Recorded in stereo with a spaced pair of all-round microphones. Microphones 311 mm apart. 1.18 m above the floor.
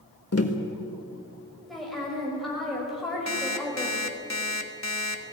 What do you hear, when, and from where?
0.3 s tapping: 50° left (ahead or behind), 1.6 m
1.7 s a woman speaking: centre (ahead or behind), 6 m
3.3 s an alarm clock: 60° left (ahead or behind), 1.4 m